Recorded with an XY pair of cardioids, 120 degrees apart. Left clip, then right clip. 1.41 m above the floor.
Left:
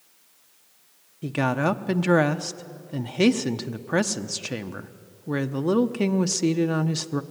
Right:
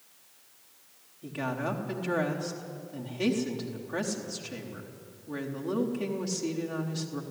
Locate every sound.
1.2 s a woman speaking: 70° left, 0.9 m